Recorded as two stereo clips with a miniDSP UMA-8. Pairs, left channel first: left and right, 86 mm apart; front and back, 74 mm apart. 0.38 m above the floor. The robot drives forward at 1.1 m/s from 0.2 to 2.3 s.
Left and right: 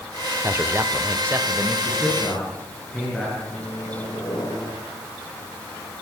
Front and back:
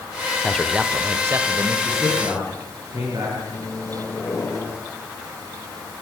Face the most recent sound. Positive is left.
turn(degrees=50)